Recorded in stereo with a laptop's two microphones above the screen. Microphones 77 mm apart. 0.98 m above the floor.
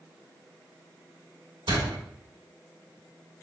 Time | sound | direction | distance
1.7 | a door slam | 80° right | 2.0 m